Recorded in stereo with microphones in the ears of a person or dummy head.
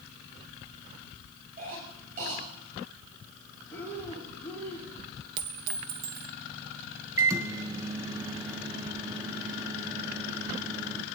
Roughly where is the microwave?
Centre.